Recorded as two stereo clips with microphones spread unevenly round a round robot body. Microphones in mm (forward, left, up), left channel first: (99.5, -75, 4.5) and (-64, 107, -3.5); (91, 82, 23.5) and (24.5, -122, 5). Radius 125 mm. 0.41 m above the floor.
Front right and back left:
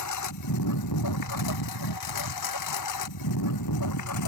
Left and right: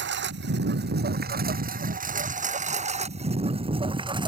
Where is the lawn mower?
75° right; by 4.3 s 40° right.